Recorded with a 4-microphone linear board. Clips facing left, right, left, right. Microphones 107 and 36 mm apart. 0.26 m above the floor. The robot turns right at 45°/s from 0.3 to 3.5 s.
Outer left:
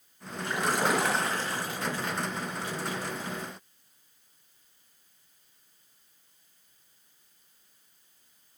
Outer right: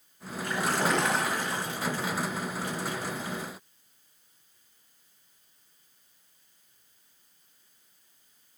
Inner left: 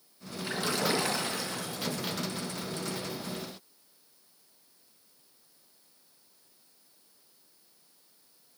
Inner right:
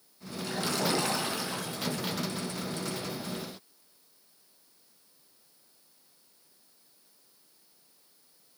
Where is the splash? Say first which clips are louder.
Even, even; 150° left, 3 m; by 2.1 s 135° right, 3 m.